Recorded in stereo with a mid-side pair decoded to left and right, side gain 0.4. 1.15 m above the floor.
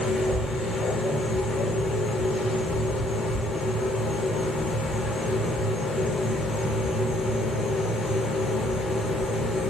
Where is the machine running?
70° left, 0.8 m.